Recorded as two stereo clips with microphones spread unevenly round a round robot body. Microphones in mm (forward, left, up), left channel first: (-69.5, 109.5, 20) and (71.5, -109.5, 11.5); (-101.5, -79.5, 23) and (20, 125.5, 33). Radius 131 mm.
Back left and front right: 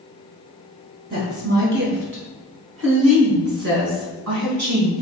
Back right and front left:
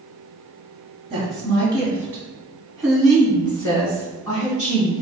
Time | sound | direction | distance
1.1 | a woman speaking | 10° right | 3.5 m